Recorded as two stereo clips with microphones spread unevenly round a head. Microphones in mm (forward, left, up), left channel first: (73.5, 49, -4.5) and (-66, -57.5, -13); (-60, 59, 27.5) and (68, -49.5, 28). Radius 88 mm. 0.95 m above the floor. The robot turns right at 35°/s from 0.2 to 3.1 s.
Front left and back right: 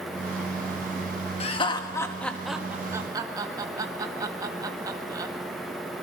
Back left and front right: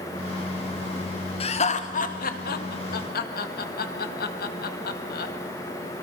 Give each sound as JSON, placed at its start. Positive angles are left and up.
{"t": 1.4, "sound": "laughter", "azimuth_deg": 90, "distance_m": 1.7}